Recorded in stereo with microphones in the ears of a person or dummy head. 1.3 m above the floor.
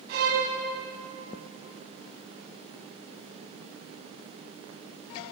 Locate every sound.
0.1 s a violin: 55° right (ahead or behind), 2.5 m